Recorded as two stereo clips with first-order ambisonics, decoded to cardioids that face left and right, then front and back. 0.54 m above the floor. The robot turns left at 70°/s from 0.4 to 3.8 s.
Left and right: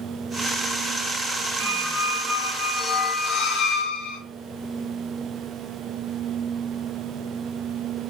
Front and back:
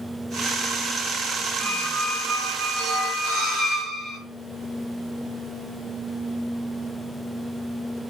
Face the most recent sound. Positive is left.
turn(degrees=115)